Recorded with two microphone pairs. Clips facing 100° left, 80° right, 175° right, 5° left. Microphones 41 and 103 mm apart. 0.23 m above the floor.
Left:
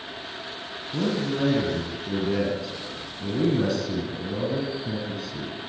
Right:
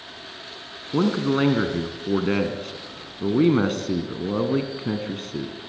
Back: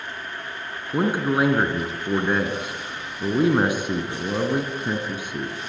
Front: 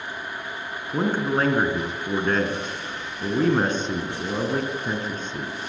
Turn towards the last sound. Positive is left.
turn(degrees=-95)